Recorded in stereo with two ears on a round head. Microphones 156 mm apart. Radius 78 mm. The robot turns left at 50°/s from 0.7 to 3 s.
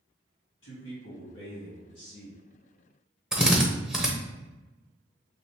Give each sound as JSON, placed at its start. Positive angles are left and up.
{"t": 0.6, "sound": "a man speaking", "azimuth_deg": 95, "distance_m": 2.0}
{"t": 3.3, "sound": "a drill", "side_deg": -5, "distance_m": 0.7}